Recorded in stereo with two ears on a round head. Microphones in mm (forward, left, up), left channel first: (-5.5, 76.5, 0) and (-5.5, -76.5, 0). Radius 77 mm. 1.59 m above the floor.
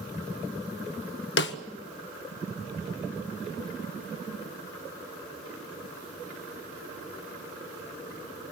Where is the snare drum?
75° left (ahead or behind), 1.5 m.